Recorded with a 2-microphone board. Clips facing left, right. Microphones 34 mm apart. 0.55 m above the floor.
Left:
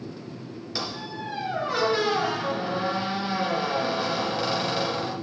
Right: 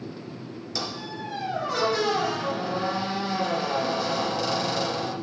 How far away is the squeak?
About 2 m.